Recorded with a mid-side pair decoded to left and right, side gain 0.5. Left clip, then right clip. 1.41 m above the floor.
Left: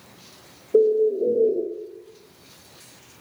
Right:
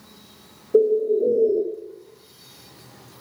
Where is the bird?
5° right, 0.6 m.